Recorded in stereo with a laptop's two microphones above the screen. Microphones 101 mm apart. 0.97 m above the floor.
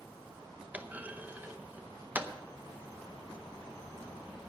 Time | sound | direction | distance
0.7 | a clunk | 15° right (ahead or behind) | 0.7 m